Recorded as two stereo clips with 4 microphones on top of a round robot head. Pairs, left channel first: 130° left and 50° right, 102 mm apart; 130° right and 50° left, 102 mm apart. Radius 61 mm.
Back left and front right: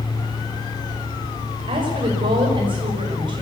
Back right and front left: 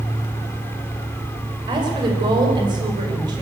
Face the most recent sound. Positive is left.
turn(degrees=-5)